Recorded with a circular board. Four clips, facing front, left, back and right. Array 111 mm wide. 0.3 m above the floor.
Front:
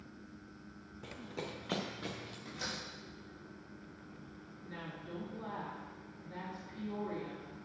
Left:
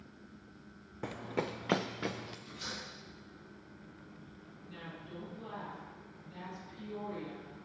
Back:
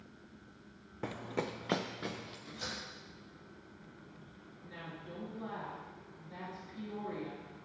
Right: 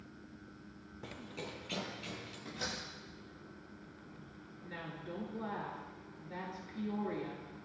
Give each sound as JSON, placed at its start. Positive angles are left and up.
{"t": 1.0, "sound": "running footsteps", "azimuth_deg": 140, "distance_m": 0.7}
{"t": 2.5, "sound": "a door slam", "azimuth_deg": -60, "distance_m": 5.0}
{"t": 4.6, "sound": "a woman speaking", "azimuth_deg": -80, "distance_m": 4.5}